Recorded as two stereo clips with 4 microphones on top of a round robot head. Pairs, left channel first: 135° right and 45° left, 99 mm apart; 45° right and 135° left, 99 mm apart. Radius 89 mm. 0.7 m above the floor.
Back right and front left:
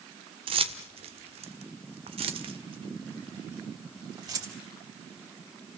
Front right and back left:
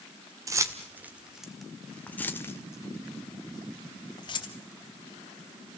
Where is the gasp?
No gasp in this recording.